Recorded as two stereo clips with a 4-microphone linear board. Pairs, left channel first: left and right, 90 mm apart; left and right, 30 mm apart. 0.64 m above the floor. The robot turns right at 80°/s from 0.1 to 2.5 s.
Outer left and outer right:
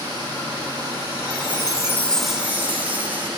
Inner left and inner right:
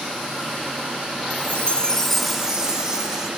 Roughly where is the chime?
Left.